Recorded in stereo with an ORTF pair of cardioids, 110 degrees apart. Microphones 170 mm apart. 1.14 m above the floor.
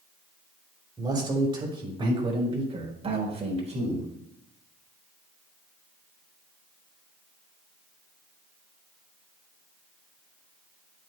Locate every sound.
1.0 s a man speaking: 25° right, 3.5 m; by 4.1 s 40° right, 5 m